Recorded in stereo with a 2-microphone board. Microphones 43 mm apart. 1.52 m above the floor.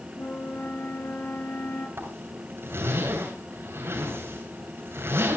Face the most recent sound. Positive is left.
turn(degrees=-70)  # may be behind; listen again after turning